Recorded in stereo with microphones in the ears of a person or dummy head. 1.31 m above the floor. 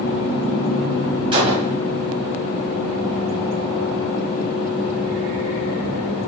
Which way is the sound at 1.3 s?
25° right (ahead or behind).